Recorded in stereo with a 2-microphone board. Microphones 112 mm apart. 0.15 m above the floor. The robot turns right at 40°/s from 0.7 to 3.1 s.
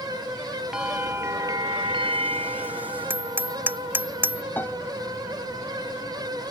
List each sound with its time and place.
0.7 s a bell: 175° right; by 4.1 s 80° right
3.1 s hammering: 15° right (ahead or behind)
4.6 s a piano: 20° left (ahead or behind)